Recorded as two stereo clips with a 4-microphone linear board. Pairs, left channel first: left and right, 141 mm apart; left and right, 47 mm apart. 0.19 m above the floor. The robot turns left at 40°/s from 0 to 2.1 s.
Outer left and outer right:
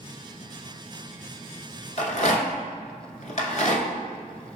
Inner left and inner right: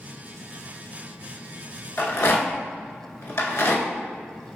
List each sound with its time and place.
2.0 s a rattle: 60° left (ahead or behind), 0.8 m; by 3.9 s 65° left (ahead or behind), 0.8 m